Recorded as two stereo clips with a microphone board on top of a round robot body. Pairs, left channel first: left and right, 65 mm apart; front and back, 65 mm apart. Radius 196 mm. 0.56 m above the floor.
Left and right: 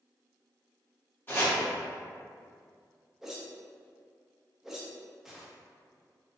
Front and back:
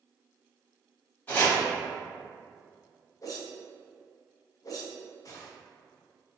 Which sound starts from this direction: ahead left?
Chopping, at 1.3 s.